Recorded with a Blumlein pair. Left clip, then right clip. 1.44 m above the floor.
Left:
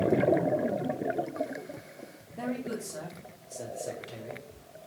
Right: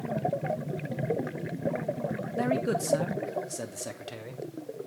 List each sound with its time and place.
2.4 s a man speaking: 70° right, 0.7 m; by 4.4 s 25° right, 1.5 m